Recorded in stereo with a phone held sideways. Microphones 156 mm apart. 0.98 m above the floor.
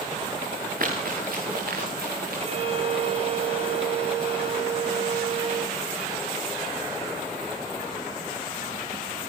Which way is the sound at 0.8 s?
65° right (ahead or behind).